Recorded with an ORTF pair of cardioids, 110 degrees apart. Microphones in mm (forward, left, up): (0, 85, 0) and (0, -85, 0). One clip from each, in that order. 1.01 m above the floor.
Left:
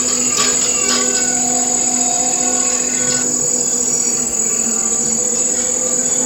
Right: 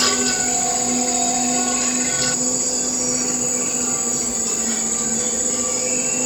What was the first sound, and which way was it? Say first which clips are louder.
An insect: left 2 dB; 30° left.